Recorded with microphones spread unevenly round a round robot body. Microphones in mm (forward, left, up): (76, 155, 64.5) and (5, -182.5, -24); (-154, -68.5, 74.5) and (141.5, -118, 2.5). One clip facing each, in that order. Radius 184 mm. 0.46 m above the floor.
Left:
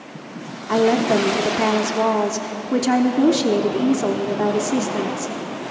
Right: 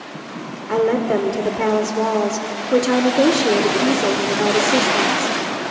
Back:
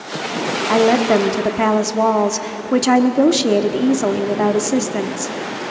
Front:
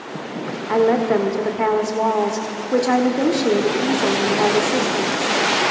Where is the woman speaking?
170° left, 1.1 m.